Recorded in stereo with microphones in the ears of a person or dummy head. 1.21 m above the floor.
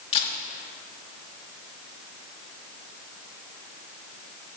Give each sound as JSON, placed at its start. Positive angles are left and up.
{"t": 0.1, "sound": "a camera shutter", "side_deg": 35, "distance_m": 3.0}